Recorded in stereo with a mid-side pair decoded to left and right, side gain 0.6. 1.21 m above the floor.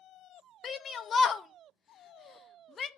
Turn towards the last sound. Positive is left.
turn(degrees=35)